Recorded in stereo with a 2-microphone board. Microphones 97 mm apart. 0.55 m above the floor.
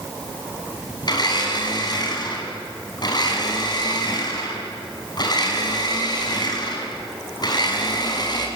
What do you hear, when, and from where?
1.0 s a blender: 45° left (ahead or behind), 5 m